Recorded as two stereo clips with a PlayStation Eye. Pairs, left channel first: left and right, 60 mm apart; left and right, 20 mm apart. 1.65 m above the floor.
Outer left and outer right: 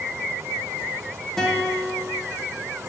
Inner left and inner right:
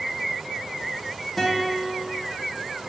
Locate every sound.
1.4 s a guitar: 5° left (ahead or behind), 1.0 m